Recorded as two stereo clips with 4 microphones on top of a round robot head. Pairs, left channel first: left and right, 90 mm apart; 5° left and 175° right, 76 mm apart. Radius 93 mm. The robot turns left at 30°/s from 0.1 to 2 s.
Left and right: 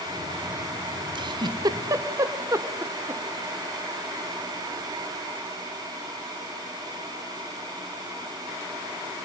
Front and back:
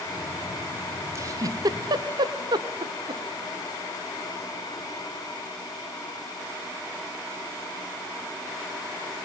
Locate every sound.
1.1 s a giggle: 120° right, 1.0 m; by 3.2 s 150° right, 1.0 m